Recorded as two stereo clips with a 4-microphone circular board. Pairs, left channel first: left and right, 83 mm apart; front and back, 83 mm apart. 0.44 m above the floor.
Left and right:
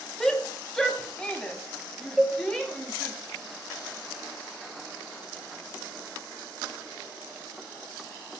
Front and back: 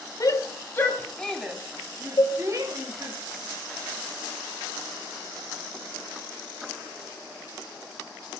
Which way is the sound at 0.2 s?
10° left.